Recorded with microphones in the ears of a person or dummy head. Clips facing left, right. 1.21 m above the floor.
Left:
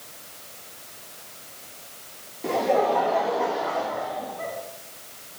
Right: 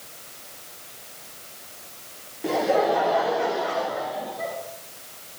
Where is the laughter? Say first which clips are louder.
Right 1 dB; centre (ahead or behind), 0.9 m; by 4.5 s 15° right (ahead or behind), 2.5 m.